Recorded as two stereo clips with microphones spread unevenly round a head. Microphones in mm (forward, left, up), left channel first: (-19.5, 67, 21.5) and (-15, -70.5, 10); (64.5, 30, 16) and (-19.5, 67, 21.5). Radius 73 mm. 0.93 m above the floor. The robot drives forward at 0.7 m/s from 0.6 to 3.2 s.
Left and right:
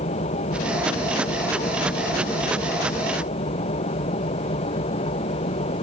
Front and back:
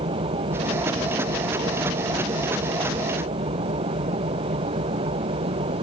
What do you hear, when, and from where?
0.0 s an engine running: 135° left; by 5.8 s 140° left